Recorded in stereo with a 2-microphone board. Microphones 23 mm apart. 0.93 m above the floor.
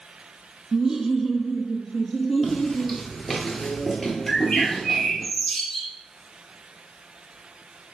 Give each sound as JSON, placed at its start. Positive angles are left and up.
{"t": 0.7, "sound": "laughter", "side_deg": -20, "distance_m": 0.5}
{"t": 2.4, "sound": "footsteps", "side_deg": -5, "distance_m": 1.2}
{"t": 4.3, "sound": "a bird", "side_deg": 5, "distance_m": 2.5}